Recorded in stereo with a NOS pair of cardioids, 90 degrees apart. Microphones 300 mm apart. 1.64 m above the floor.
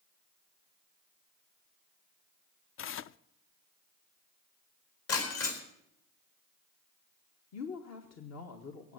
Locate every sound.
2.8 s tearing paper: 45° left, 0.5 m
5.1 s breaking glass: 55° left, 4 m
7.5 s a woman speaking: 60° left, 1.8 m